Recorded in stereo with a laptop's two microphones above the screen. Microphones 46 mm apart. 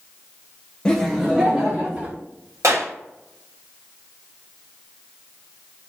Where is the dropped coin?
I don't hear a dropped coin.